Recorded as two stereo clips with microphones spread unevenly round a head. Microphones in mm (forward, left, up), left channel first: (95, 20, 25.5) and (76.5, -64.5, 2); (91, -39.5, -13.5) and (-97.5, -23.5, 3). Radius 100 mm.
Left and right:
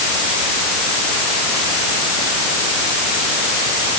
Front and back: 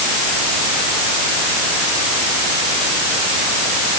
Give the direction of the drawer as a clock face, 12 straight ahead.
I don't hear a drawer.